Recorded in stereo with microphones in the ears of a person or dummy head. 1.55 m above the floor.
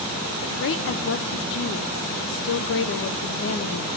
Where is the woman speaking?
65° left (ahead or behind), 0.6 m.